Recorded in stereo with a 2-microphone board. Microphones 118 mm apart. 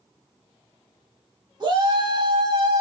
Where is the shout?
35° right (ahead or behind), 1.3 m.